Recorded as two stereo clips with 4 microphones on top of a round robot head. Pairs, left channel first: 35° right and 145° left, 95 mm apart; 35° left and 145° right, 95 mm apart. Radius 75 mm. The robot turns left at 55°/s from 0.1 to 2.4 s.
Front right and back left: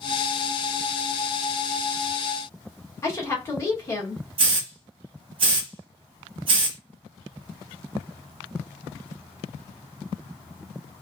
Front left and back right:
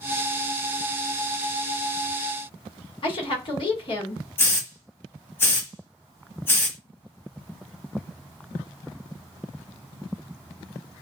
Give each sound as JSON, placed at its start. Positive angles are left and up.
{"t": 3.0, "sound": "a woman speaking", "azimuth_deg": 20, "distance_m": 1.7}
{"t": 4.4, "sound": "a hiss", "azimuth_deg": 105, "distance_m": 0.9}